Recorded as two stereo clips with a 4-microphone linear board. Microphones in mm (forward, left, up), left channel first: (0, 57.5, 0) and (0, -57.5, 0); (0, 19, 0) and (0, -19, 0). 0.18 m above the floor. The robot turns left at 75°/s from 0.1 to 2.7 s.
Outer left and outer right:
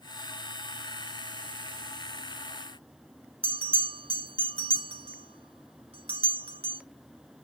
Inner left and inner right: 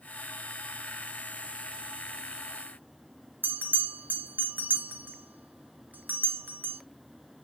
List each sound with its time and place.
3.4 s a bell: 55° right (ahead or behind), 2 m